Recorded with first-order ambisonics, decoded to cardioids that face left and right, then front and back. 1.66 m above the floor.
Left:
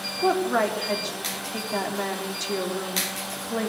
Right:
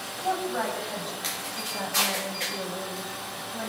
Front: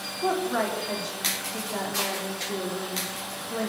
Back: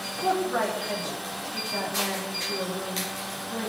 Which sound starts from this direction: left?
A woman speaking, at 0.2 s.